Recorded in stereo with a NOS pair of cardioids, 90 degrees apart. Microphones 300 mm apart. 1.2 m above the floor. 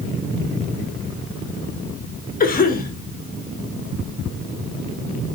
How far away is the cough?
About 2.5 m.